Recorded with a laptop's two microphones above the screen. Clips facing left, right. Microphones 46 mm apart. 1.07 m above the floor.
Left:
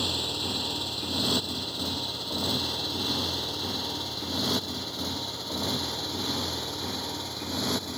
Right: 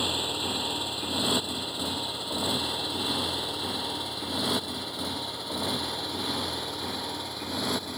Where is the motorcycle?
15° right (ahead or behind); by 8.0 s 5° right (ahead or behind).